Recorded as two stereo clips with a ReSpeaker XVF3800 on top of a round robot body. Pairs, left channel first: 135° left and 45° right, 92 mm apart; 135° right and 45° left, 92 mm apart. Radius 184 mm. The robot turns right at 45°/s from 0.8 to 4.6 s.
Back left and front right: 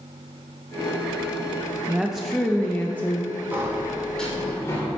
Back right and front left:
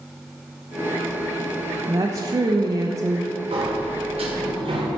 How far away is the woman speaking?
About 1.1 m.